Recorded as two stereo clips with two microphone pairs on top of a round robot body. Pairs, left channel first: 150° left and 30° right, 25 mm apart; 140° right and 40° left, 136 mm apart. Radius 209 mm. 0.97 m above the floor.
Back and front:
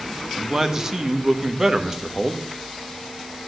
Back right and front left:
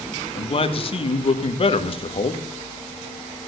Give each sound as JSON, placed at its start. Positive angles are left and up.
{"t": 0.3, "sound": "a man speaking", "azimuth_deg": -95, "distance_m": 1.6}